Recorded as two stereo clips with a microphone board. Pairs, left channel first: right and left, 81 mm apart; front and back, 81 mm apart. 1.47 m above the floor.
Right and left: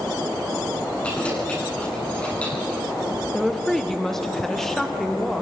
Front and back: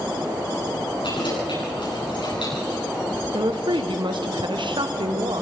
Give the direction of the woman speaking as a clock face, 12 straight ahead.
6 o'clock.